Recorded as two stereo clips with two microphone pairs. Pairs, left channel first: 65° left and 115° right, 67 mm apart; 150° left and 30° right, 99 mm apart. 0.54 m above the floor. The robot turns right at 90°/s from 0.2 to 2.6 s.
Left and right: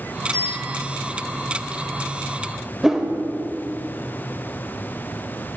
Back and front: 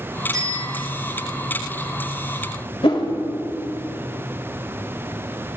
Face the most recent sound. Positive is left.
turn(degrees=160)